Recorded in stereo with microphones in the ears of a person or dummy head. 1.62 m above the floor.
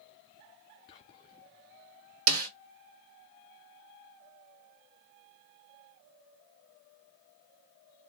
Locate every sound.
0.9 s whispering: 20° left (ahead or behind), 0.5 m
2.3 s a snare drum: 70° right (ahead or behind), 1.2 m